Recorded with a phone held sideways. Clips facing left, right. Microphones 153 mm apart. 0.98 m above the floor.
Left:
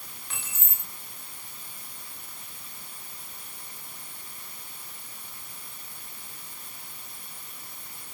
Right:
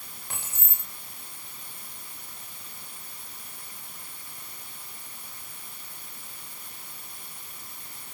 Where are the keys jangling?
45° right (ahead or behind), 2.5 m.